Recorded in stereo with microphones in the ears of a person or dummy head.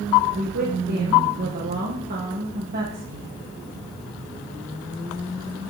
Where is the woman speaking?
45° right (ahead or behind), 1.1 m.